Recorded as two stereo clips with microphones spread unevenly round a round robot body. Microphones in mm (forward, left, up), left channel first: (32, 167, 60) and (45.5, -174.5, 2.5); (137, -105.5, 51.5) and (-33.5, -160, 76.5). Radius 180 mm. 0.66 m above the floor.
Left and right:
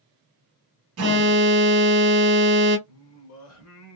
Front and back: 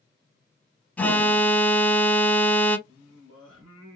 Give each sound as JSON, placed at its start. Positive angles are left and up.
{"t": 1.0, "sound": "an alarm", "azimuth_deg": -60, "distance_m": 1.0}
{"t": 2.9, "sound": "singing", "azimuth_deg": 140, "distance_m": 0.9}